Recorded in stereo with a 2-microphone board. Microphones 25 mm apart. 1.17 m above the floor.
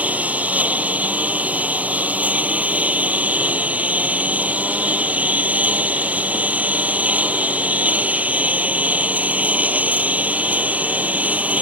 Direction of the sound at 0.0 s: 75° right (ahead or behind).